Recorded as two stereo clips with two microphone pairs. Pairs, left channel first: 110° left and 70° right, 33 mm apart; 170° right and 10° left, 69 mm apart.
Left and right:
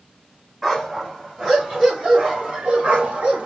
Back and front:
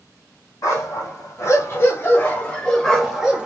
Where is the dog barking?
145° right, 2.0 m; by 3.5 s 60° right, 1.1 m.